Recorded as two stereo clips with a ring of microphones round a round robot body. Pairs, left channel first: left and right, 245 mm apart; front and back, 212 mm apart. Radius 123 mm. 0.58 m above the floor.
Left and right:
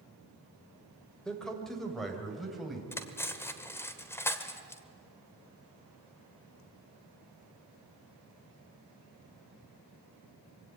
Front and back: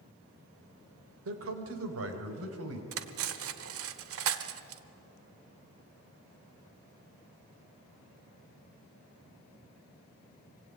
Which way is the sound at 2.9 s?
170° left.